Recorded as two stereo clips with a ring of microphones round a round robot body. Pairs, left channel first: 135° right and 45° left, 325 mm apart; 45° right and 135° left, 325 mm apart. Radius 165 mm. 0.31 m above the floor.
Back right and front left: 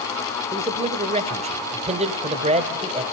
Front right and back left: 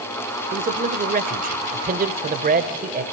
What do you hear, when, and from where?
0.5 s a man speaking: 95° left, 1.2 m